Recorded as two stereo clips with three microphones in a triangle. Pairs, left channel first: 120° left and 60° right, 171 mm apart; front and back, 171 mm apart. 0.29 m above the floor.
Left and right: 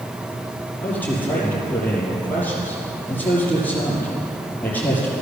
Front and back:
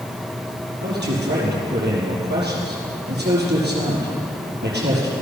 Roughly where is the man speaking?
Behind.